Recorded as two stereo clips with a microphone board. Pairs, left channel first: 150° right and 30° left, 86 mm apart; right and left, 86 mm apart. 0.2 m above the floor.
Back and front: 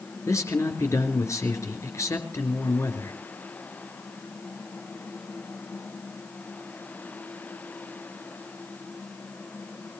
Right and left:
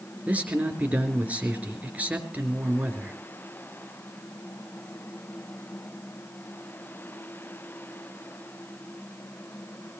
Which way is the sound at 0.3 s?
160° left.